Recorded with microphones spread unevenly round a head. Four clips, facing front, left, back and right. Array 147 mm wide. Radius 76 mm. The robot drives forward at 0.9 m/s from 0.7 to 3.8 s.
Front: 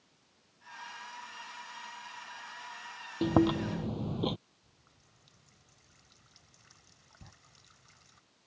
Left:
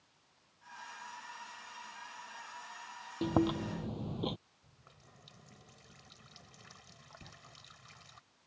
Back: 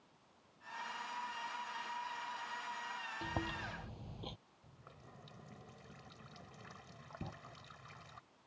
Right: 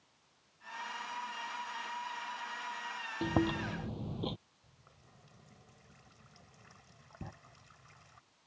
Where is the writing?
145° right.